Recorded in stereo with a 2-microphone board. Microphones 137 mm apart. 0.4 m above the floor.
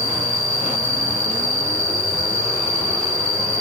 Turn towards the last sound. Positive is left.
turn(degrees=40)  # may be behind; listen again after turning